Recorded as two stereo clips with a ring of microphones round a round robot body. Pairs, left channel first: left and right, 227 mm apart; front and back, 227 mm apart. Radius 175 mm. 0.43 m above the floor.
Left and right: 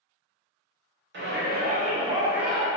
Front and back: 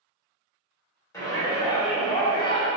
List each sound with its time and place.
1.1 s a shout: 75° right, 1.2 m; by 2.7 s 15° left, 0.8 m